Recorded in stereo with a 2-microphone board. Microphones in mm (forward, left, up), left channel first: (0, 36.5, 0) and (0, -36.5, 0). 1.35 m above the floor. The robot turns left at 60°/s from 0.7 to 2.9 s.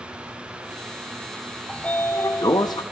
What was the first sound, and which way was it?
A sliding door, 170° left.